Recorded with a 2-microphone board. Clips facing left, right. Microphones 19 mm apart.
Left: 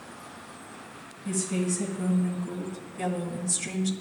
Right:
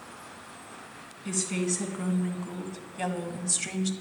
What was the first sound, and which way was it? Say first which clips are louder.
A woman speaking: left 1 dB; 40° right (ahead or behind).